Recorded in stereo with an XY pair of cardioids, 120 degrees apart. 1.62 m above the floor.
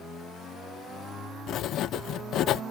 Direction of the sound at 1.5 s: 65° left.